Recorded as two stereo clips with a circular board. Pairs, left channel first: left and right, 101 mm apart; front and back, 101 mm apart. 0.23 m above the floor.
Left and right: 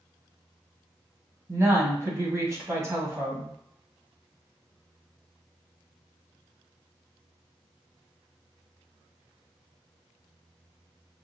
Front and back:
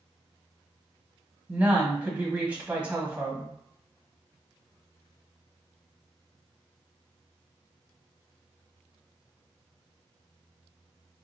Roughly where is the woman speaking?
Behind right.